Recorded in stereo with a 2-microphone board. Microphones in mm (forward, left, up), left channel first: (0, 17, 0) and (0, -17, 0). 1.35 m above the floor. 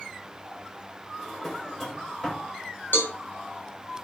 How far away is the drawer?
About 2.5 m.